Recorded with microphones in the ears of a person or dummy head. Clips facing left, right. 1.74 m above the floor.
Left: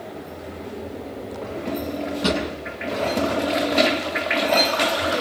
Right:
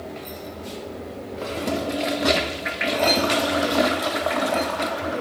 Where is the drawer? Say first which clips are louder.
Even; 35° left (ahead or behind), 7 m.